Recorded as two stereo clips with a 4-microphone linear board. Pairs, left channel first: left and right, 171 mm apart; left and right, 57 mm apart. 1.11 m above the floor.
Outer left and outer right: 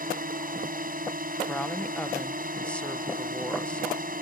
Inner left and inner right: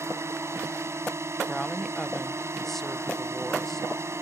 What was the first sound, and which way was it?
A drone, 55° right (ahead or behind).